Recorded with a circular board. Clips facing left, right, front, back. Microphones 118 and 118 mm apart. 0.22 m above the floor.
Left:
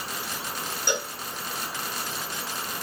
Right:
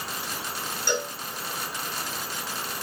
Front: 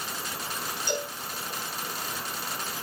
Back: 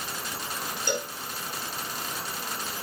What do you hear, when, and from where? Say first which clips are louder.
0.9 s a cowbell: right 2 dB, back 1 dB; 165° left, 4 m